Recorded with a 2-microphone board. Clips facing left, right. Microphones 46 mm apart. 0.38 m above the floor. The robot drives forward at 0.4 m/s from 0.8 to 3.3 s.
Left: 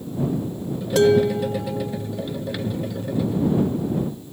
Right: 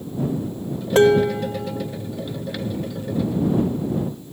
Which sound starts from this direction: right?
Dishes clattering, at 0.9 s.